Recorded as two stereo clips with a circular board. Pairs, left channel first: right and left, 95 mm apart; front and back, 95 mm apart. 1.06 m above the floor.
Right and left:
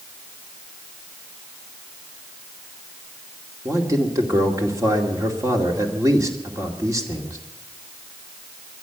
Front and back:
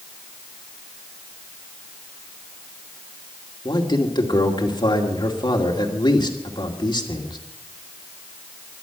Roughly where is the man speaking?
Ahead left.